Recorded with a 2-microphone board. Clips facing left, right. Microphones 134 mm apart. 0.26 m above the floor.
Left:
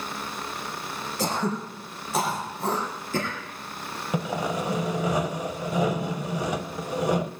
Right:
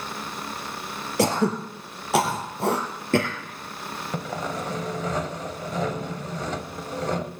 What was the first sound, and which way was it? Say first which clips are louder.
Throat clearing: right 6 dB; 80° right.